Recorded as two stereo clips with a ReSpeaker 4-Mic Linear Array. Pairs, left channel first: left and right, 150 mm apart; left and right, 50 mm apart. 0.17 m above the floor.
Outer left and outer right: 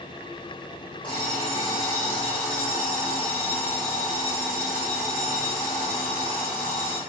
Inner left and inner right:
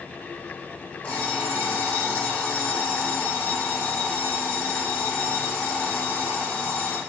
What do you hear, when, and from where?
1.0 s an alarm clock: 35° left (ahead or behind), 3.5 m